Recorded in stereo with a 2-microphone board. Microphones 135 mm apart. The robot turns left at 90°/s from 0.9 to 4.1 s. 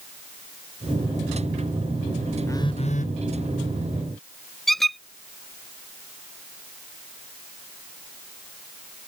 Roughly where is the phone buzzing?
Behind.